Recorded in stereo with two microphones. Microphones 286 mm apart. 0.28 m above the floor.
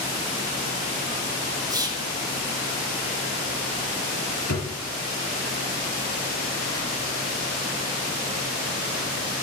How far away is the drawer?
About 3 m.